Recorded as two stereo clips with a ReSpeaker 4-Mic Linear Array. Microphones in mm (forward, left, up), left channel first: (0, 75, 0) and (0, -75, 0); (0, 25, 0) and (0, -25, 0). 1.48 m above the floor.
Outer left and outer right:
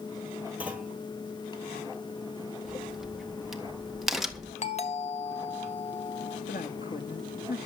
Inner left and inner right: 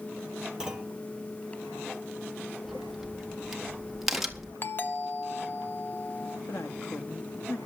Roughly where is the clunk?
Centre.